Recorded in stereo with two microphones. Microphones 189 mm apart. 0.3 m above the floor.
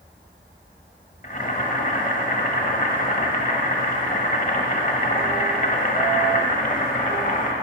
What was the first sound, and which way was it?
Boiling, 45° left (ahead or behind).